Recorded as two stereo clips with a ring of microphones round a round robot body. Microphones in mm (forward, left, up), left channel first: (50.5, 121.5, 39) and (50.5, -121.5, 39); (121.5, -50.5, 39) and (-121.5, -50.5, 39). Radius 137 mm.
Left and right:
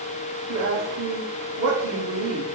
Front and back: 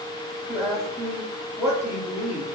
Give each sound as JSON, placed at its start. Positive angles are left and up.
{"t": 0.5, "sound": "a woman speaking", "azimuth_deg": -95, "distance_m": 2.0}